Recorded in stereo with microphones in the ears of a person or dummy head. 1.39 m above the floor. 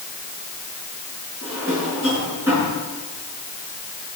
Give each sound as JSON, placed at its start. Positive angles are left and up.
{"t": 1.4, "sound": "a drawer", "side_deg": -5, "distance_m": 7.0}